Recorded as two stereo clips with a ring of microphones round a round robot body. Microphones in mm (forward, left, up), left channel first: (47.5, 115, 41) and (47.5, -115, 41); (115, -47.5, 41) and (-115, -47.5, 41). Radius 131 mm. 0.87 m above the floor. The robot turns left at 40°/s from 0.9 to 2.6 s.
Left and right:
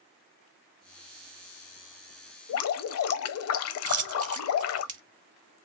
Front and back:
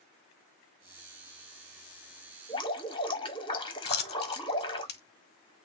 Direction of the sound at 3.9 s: 40° right.